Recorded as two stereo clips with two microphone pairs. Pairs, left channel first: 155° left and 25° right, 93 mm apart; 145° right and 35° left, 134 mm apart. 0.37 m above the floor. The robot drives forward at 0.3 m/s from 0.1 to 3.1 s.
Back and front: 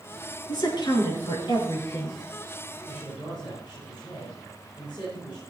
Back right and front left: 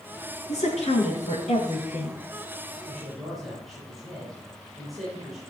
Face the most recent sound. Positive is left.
turn(degrees=125)